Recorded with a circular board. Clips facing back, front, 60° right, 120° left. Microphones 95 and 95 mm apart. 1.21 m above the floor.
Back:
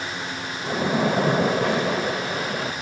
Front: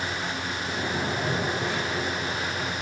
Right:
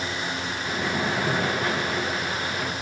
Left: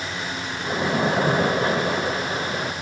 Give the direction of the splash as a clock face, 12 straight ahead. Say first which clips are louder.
Back 9 dB, left 6 dB; 6 o'clock.